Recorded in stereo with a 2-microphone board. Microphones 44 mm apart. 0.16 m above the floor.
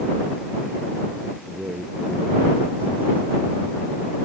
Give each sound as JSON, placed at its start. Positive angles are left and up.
{"t": 1.5, "sound": "a man speaking", "side_deg": -45}